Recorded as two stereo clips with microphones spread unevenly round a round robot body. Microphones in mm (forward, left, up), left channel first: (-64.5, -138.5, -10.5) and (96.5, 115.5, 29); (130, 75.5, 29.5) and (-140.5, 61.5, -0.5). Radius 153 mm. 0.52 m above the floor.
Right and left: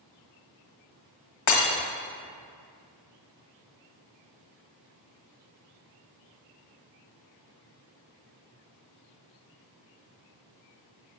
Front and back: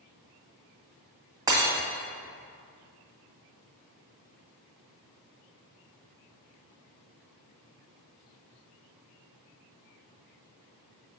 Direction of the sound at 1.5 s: 100° right.